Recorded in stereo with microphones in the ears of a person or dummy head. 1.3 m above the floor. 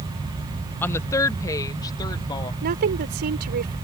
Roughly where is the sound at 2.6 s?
Right.